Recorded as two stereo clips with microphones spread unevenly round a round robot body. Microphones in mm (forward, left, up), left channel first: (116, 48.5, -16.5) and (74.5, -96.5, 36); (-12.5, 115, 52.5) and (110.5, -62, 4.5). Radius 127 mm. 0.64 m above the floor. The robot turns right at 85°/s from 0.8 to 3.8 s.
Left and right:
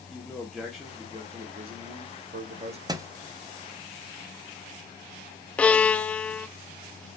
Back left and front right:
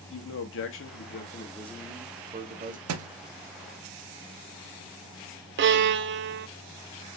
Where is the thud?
70° right, 0.5 m; by 3.1 s 55° right, 0.5 m.